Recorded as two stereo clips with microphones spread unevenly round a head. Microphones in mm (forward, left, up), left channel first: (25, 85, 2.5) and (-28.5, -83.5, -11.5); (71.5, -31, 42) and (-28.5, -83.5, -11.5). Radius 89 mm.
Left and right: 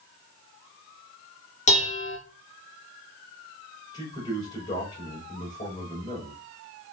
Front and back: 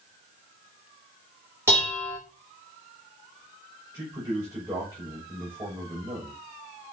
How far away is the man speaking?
About 6 m.